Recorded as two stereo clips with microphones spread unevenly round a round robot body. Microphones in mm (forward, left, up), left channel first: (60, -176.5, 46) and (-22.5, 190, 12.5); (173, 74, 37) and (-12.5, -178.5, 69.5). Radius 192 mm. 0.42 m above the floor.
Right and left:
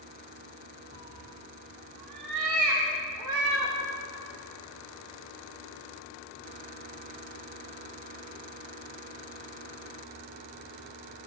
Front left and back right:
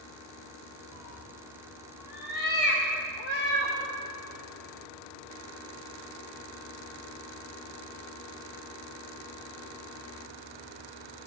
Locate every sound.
0.9 s a cat meowing: 40° left, 3 m; by 3.8 s 75° left, 4 m